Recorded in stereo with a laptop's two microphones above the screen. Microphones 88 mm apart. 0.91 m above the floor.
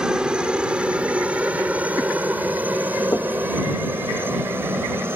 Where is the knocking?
35° left (ahead or behind).